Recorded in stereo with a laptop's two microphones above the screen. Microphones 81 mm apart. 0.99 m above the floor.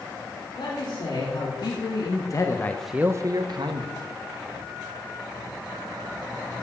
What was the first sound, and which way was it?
A man speaking, 65° left (ahead or behind).